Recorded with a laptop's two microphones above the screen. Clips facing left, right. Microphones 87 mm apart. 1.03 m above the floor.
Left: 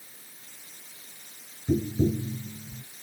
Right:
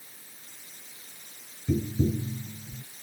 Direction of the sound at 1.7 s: 30° left (ahead or behind).